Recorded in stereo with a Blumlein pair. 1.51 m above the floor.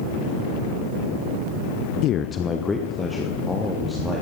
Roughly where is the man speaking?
Ahead left.